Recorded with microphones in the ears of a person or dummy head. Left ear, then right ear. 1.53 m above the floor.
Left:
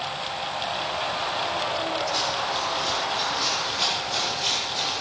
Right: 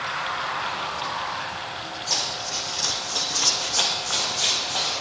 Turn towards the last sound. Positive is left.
turn(degrees=-70)  # may be behind; listen again after turning